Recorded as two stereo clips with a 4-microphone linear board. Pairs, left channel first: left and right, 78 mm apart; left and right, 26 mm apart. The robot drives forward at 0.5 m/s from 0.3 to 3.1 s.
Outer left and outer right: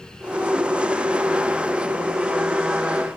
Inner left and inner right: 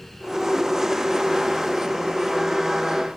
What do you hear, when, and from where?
Only background noise.